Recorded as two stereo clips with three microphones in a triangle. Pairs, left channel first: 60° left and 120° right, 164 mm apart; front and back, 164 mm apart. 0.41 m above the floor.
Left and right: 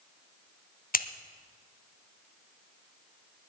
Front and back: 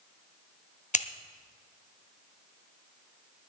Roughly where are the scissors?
Ahead left.